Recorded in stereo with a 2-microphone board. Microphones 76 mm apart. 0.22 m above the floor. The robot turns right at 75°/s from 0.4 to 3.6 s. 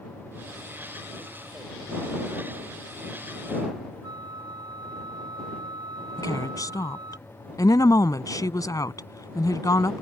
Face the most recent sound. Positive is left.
turn(degrees=50)  # may be behind; listen again after turning